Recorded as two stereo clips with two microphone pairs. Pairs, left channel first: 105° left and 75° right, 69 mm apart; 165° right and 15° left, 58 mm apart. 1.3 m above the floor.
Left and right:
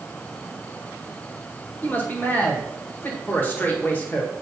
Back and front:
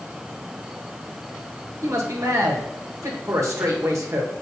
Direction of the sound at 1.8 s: 40° left.